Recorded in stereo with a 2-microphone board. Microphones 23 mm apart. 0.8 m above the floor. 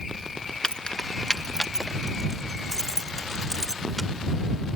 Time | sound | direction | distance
0.6 | keys jangling | 35° left (ahead or behind) | ?